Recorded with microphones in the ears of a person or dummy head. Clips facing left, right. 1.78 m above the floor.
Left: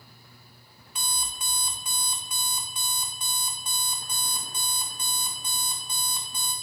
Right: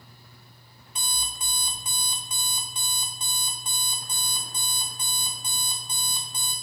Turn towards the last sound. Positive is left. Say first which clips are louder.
# left 1 dB
turn(degrees=-25)  # may be behind; listen again after turning